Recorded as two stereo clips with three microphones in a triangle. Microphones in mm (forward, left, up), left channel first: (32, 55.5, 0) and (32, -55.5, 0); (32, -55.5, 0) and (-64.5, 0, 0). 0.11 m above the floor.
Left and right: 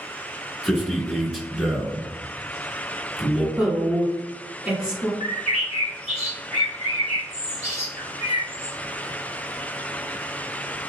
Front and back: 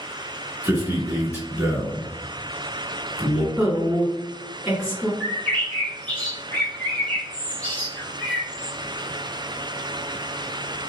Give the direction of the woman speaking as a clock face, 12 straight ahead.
5 o'clock.